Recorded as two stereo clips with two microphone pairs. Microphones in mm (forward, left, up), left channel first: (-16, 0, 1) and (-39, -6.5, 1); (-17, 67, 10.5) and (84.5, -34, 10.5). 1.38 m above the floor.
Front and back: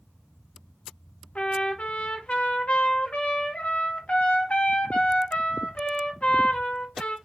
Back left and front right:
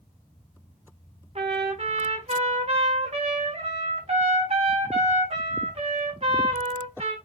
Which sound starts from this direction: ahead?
A trumpet, at 1.4 s.